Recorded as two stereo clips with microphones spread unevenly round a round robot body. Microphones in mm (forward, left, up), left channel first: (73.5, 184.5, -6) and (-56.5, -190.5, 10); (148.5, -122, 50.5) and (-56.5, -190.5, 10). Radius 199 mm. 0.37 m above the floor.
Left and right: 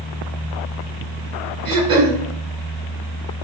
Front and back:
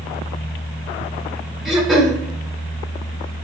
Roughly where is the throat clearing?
Right.